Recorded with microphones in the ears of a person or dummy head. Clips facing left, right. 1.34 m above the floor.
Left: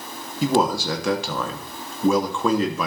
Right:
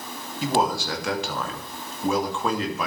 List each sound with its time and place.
0.4 s a man speaking: 85° left, 2.5 m